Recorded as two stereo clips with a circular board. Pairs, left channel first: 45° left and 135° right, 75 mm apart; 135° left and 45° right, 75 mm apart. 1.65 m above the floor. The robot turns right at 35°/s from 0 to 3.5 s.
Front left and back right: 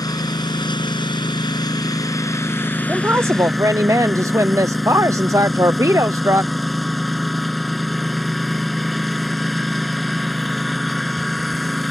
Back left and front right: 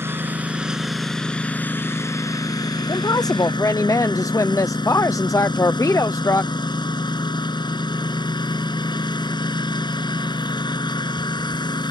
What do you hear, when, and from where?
0.0 s a lawn mower: 10° left; by 11.9 s 135° left
2.9 s a woman speaking: 155° left; by 6.5 s 175° left